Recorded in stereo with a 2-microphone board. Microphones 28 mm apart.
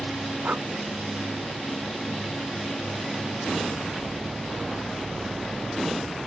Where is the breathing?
85° right.